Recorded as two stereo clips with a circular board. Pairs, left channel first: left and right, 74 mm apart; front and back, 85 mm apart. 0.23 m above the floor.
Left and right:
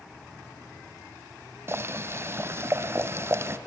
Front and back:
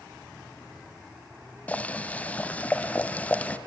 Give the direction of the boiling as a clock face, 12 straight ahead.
2 o'clock.